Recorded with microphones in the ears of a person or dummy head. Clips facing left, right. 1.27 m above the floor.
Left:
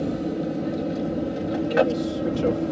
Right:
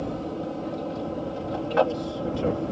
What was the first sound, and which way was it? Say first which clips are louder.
An aircraft: left 5 dB; 25° left (ahead or behind).